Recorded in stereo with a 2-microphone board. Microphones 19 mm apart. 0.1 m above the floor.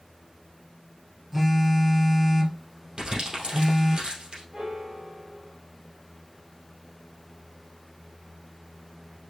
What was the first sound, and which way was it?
A phone buzzing, 20° right (ahead or behind).